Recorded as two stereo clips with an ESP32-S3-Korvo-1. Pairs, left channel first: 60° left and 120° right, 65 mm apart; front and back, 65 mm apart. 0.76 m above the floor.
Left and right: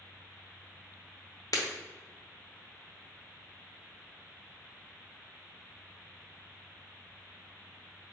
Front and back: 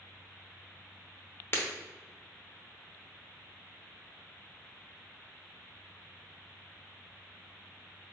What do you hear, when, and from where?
1.5 s breaking glass: 50° left, 0.8 m